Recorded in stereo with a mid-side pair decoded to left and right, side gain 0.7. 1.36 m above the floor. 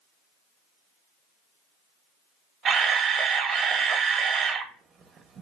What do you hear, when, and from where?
2.6 s a camera shutter: 30° right, 0.7 m